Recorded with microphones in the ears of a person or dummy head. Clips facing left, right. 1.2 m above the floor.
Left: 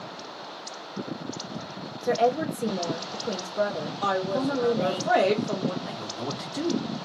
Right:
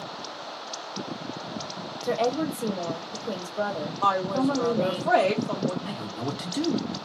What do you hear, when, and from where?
2.0 s a woman speaking: 20° left (ahead or behind), 0.9 m
4.0 s a woman speaking: 15° left (ahead or behind), 1.3 m
5.8 s a man speaking: 35° right (ahead or behind), 1.2 m